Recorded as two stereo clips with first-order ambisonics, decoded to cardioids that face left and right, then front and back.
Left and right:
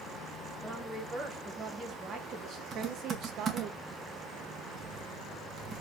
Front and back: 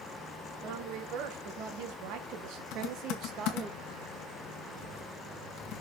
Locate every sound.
0.6 s a woman speaking: 165° right, 3.5 m; by 3.7 s 120° right, 1.3 m
2.7 s typing on a keyboard: 30° right, 1.9 m